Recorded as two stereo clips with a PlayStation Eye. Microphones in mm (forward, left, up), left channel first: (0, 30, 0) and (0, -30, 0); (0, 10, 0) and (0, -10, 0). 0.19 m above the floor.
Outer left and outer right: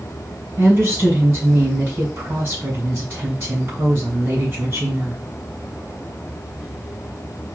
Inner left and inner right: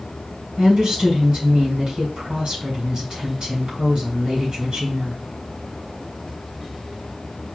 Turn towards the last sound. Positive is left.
turn(degrees=-50)  # may be behind; listen again after turning